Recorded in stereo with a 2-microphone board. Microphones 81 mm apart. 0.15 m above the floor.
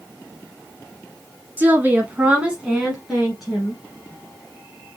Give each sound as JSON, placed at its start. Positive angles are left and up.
{"t": 1.6, "sound": "a woman speaking", "side_deg": -20, "distance_m": 1.2}